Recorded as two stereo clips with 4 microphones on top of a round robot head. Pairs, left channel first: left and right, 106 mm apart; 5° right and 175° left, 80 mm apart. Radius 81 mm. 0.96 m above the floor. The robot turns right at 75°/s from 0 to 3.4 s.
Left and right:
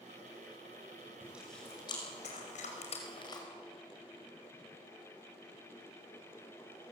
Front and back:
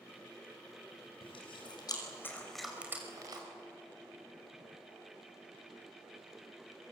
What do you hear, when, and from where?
1.2 s chewing: 20° right, 5.5 m; by 3.4 s 145° left, 5.5 m